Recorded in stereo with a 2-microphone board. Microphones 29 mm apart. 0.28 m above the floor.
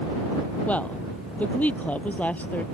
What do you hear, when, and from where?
0.7 s a woman speaking: 60° left (ahead or behind); by 2.6 s 65° left (ahead or behind)